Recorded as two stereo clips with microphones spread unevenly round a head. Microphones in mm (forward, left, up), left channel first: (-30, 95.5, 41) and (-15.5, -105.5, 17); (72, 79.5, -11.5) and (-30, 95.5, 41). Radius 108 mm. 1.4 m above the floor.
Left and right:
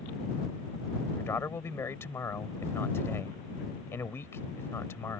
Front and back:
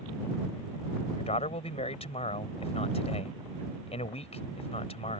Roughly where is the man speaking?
Ahead.